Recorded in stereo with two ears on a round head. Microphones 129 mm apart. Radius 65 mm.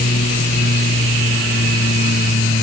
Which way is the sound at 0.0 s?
65° left (ahead or behind).